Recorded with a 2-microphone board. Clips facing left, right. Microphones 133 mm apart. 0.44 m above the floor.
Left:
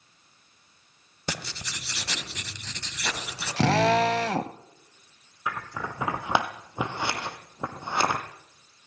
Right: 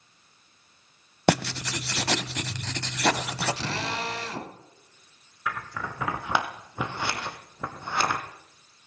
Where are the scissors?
20° left (ahead or behind), 2.5 m.